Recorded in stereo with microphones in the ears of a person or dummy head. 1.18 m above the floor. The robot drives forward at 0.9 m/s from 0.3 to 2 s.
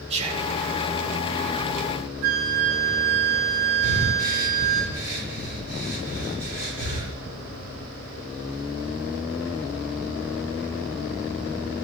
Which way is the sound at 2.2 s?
60° right (ahead or behind).